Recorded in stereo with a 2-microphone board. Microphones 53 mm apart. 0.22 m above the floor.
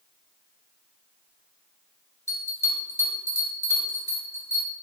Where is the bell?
55° left (ahead or behind), 2 m.